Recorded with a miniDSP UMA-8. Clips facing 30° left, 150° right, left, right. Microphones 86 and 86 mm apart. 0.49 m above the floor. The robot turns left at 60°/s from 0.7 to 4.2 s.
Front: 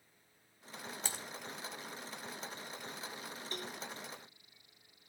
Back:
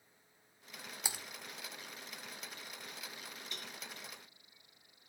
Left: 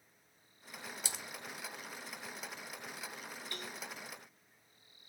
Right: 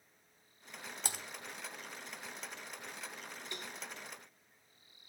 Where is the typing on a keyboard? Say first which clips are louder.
Back 1 dB, right 7 dB; 75° right, 1.2 m; by 1.2 s 85° right, 1.2 m.